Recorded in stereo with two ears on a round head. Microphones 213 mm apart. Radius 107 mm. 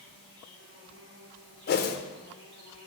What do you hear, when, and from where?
0.0 s an insect: 45° right (ahead or behind), 1.5 m
1.7 s a whoosh: 40° left (ahead or behind), 0.5 m